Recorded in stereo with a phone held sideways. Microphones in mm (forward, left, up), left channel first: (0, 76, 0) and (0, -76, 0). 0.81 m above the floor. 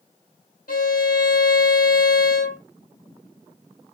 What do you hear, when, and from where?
0.7 s a violin: 70° left (ahead or behind), 1.3 m